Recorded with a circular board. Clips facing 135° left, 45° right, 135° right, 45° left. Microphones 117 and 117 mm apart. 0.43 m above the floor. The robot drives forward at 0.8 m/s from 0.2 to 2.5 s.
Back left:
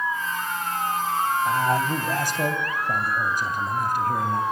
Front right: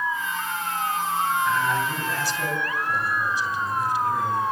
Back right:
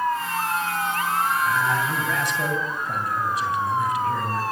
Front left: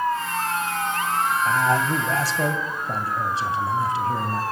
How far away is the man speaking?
About 3 m.